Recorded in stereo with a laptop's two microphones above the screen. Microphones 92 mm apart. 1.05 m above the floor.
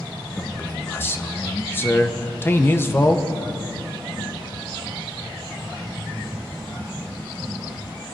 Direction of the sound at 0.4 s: 25° left (ahead or behind).